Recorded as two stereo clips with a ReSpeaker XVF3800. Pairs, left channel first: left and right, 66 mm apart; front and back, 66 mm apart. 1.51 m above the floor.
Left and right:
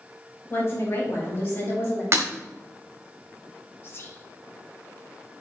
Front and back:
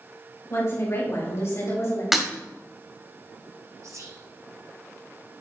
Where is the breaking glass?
95° right, 1.4 m.